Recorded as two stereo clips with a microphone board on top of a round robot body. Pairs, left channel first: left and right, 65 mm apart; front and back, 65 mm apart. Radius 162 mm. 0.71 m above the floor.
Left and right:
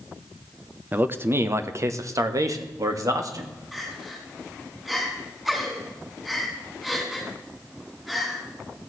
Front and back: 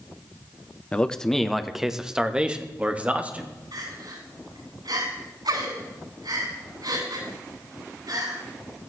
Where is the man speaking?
55° right, 1.0 m; by 3.5 s 115° right, 2 m.